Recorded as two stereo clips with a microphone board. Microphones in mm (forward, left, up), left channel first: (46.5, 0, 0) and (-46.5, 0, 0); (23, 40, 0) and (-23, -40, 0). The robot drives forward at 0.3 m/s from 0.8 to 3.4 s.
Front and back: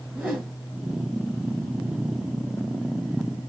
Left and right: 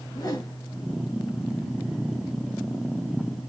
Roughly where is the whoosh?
Left.